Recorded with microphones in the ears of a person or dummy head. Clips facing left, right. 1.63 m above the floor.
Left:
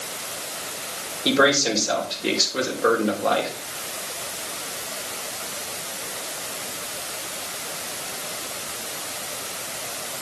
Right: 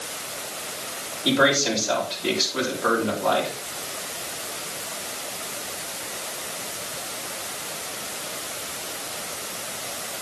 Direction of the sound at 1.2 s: 30° left (ahead or behind).